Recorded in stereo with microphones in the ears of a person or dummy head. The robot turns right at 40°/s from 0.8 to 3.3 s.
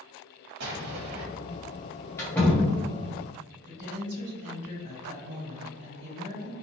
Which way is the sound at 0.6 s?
65° right (ahead or behind).